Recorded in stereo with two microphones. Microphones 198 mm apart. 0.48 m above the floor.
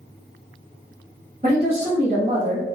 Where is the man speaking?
45° right (ahead or behind), 1.5 m.